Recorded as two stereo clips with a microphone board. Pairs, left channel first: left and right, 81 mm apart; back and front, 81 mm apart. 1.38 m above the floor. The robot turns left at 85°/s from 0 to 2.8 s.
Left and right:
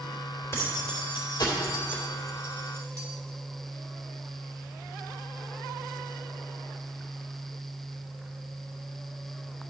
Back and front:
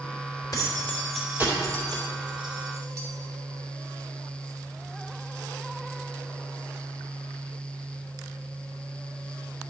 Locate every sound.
0.5 s keys jangling: 145° left, 2.5 m; by 3.1 s 50° right, 2.5 m